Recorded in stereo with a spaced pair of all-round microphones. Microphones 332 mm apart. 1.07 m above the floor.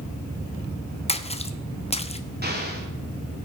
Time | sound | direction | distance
1.1 | a splash | 20° left (ahead or behind) | 0.7 m
2.4 | an explosion | 30° right (ahead or behind) | 3 m